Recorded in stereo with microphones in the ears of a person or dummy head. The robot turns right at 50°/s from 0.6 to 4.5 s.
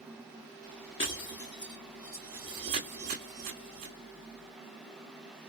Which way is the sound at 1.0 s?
25° left (ahead or behind).